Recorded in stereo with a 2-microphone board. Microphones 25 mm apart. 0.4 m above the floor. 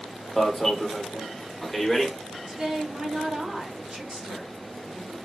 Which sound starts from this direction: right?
A woman speaking, at 2.5 s.